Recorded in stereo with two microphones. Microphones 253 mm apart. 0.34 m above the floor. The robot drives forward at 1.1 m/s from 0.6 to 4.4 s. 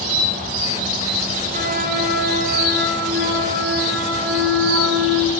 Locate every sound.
1.5 s a flute: 35° right (ahead or behind), 7 m; by 5.3 s 55° right (ahead or behind), 4.5 m